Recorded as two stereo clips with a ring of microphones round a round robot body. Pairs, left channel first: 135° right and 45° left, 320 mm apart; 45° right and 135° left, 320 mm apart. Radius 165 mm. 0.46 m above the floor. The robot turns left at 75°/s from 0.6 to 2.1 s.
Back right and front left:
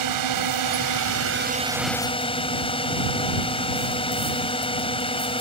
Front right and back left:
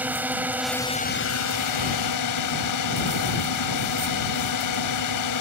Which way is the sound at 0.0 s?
50° left.